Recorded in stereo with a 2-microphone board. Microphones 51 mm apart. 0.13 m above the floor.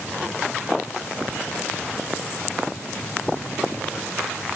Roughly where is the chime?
No chime in this recording.